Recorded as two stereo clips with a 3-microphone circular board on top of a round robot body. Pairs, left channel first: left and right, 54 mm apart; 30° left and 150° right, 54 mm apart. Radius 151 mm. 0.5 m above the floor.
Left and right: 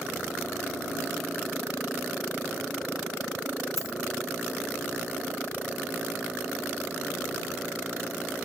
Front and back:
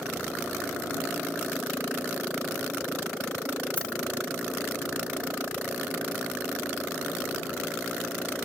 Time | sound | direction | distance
3.8 | a dropped coin | 95° left | ?